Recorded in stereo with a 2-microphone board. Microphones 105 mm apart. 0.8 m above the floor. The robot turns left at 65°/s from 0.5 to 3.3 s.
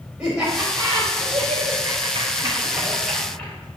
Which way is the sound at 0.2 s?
10° right (ahead or behind).